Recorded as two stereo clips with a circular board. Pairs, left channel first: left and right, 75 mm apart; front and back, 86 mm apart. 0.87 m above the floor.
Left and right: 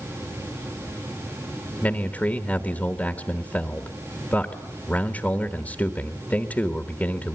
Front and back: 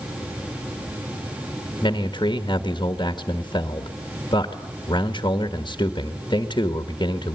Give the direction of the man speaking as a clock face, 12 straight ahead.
11 o'clock.